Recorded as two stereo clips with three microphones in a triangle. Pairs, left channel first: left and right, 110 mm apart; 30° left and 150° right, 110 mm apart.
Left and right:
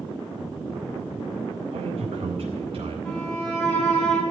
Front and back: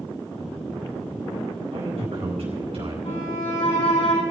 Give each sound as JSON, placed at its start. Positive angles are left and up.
{"t": 1.7, "sound": "a man speaking", "azimuth_deg": -125, "distance_m": 4.5}
{"t": 3.0, "sound": "a violin", "azimuth_deg": 10, "distance_m": 5.5}